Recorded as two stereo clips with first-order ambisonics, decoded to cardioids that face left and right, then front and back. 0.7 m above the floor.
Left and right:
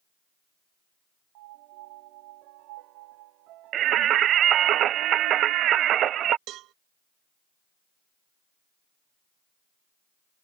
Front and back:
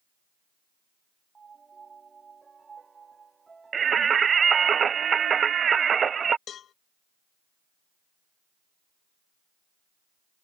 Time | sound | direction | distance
1.4 | a piano | 105° right | ?
3.7 | singing | 120° right | ?
6.5 | a cowbell | 55° right | ?